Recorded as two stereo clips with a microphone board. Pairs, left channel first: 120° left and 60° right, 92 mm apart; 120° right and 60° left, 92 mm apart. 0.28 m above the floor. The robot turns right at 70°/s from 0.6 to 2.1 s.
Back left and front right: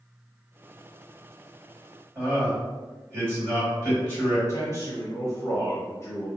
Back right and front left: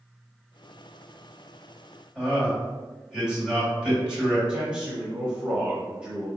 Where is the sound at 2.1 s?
15° right, 1.8 m.